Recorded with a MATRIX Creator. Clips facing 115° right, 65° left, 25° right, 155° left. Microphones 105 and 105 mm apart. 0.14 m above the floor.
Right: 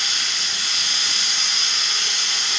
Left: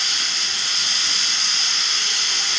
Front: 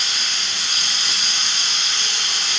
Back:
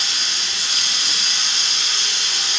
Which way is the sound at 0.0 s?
40° right.